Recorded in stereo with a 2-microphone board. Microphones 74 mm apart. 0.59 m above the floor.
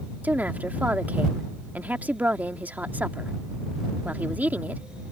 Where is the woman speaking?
25° right (ahead or behind).